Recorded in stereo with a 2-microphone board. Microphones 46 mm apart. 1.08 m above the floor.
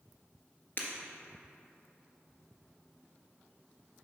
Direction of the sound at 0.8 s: 45° left (ahead or behind).